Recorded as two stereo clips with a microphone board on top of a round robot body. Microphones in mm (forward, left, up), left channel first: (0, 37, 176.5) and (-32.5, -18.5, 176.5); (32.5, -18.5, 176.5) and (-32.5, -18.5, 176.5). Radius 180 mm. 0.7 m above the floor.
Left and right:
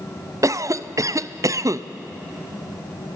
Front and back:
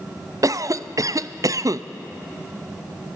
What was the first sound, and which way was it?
A cough, 150° right.